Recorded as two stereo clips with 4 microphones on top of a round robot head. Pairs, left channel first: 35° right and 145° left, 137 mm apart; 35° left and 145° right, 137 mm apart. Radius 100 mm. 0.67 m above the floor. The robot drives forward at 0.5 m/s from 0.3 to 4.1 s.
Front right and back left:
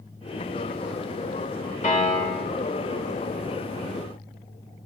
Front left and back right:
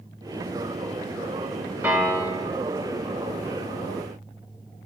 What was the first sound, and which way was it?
A piano, 70° right.